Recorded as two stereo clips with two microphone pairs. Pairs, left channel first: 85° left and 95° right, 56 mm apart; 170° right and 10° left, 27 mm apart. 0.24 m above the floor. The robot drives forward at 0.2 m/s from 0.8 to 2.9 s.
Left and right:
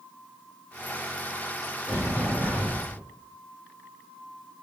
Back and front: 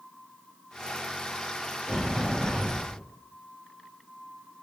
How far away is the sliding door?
About 1.8 m.